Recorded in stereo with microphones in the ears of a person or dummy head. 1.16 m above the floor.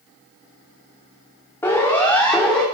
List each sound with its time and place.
1.6 s a siren: 15° left (ahead or behind), 2.5 m; by 2.6 s 5° left (ahead or behind), 3 m